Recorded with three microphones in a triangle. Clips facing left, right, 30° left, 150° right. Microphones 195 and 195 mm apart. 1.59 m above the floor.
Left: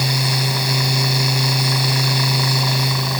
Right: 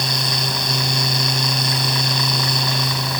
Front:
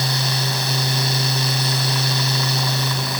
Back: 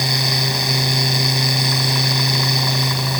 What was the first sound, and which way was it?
Only background noise.